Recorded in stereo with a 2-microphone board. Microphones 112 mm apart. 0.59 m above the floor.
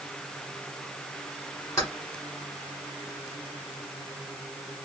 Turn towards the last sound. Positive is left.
turn(degrees=30)  # may be behind; listen again after turning